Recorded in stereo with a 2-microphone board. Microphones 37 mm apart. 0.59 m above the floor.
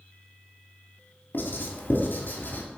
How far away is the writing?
About 2.5 m.